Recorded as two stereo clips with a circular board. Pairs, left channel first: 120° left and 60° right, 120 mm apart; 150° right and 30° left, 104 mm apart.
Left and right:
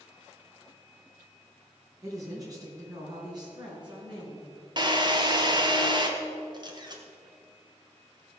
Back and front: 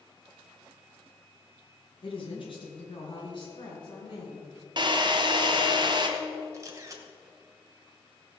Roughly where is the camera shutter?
Ahead.